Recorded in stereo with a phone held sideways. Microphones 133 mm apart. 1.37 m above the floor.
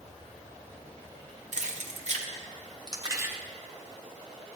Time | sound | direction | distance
1.5 | keys jangling | 60° right (ahead or behind) | 1.1 m